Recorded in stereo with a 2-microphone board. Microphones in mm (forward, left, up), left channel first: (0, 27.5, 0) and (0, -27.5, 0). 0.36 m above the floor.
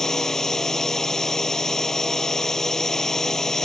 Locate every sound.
0.0 s a drone: 10° left (ahead or behind)